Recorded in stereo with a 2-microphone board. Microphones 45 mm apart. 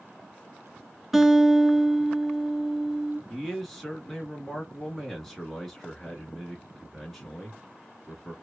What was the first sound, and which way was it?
A guitar, 5° right (ahead or behind).